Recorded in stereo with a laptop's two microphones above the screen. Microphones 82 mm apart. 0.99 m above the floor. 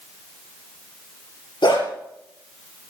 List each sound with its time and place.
1.6 s a dog barking: 70° left (ahead or behind), 6.5 m